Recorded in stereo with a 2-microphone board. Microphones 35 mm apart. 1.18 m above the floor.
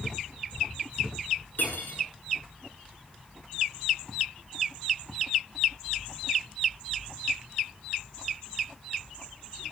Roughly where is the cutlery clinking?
Left.